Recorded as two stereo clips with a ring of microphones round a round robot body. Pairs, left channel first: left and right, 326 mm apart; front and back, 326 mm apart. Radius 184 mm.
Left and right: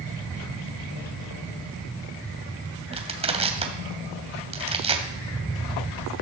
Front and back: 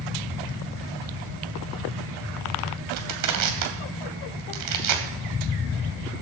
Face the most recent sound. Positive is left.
turn(degrees=-160)